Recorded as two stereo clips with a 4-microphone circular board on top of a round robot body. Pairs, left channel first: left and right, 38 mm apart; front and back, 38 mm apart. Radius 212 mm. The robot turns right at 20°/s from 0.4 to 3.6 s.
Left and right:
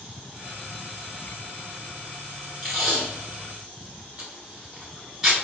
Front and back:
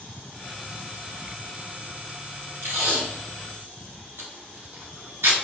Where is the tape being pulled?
175° left, 0.8 m; by 5.3 s 165° right, 0.8 m.